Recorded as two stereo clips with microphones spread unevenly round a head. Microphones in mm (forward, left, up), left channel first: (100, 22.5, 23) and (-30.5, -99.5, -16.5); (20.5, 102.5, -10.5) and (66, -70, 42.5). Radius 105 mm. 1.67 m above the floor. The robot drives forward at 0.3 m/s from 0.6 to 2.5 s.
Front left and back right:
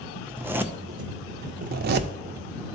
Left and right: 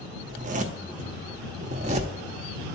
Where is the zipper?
50° right, 0.5 m; by 2.1 s 115° right, 0.5 m.